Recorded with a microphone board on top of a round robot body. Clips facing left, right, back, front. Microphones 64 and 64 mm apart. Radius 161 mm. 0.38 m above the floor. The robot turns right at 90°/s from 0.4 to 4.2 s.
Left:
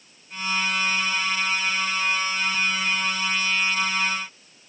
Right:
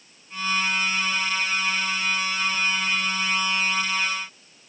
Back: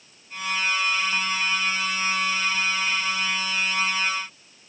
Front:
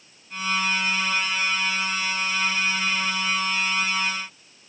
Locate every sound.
Only background noise.